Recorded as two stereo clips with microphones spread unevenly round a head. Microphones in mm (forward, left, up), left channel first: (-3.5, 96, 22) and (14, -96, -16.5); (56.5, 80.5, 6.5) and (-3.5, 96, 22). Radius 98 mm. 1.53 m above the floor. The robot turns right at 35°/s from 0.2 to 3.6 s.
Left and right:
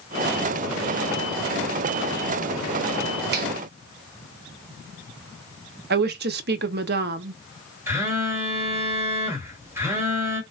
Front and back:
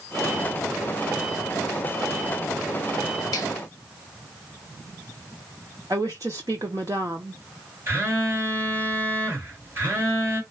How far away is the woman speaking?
About 0.6 m.